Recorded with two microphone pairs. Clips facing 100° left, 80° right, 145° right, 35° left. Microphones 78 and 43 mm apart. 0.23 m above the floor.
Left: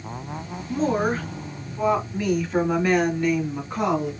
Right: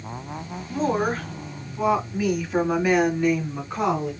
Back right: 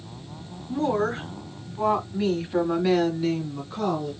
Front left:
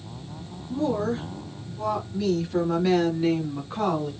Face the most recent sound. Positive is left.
turn(degrees=5)